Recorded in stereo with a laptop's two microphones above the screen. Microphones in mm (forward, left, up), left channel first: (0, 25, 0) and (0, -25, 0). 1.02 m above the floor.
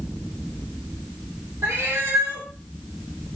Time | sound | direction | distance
1.6 | a cat meowing | 75° right (ahead or behind) | 1.2 m